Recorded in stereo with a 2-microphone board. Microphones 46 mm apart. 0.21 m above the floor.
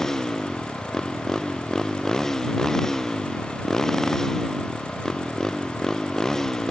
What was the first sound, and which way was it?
A motorcycle, 10° left (ahead or behind).